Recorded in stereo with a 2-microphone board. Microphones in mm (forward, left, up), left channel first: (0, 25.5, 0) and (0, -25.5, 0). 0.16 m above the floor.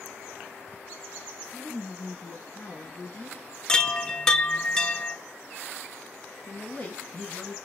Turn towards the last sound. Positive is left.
turn(degrees=25)  # may be behind; listen again after turning